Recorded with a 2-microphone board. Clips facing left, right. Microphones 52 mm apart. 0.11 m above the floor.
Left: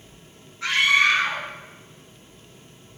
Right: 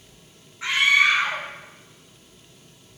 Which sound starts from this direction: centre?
A scream, at 0.6 s.